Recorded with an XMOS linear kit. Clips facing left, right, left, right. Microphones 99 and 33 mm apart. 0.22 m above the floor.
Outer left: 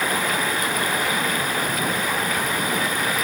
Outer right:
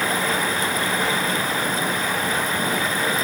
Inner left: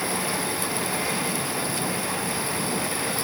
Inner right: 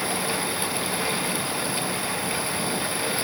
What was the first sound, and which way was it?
Only background noise.